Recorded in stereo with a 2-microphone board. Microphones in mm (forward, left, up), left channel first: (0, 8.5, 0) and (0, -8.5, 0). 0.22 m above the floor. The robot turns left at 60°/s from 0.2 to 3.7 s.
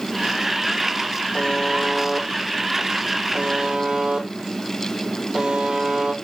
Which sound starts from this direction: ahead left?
A buzzer, at 1.3 s.